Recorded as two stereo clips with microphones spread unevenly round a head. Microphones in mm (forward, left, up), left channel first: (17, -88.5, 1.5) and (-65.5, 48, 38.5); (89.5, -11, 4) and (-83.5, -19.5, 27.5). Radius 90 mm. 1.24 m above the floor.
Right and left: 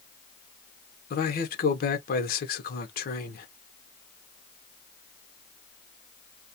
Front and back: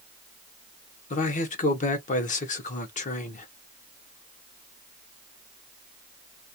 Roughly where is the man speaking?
Ahead right.